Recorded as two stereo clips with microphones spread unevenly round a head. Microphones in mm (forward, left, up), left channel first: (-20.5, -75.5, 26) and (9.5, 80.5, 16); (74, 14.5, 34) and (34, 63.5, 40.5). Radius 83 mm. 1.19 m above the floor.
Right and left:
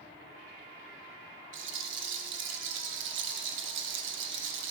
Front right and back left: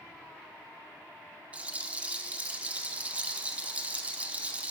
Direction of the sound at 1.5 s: 60° left.